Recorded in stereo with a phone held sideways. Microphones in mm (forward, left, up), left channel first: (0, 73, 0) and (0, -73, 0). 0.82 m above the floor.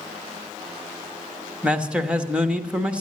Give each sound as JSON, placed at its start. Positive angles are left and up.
{"t": 1.6, "sound": "a man speaking", "side_deg": -5, "distance_m": 0.9}